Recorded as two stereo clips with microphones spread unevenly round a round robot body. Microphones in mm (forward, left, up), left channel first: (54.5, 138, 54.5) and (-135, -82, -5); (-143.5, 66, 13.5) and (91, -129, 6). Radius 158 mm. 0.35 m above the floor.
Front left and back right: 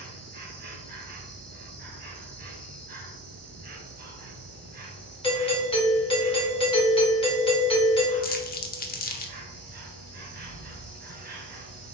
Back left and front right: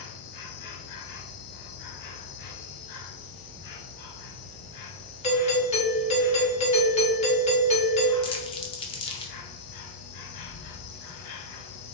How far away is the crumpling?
About 0.7 m.